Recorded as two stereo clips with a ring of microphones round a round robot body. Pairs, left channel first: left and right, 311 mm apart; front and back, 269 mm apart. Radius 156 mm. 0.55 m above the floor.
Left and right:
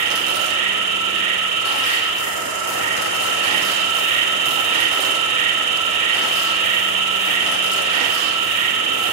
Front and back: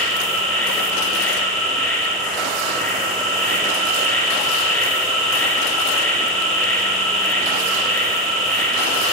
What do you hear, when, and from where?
0.0 s an insect: 80° right, 3.5 m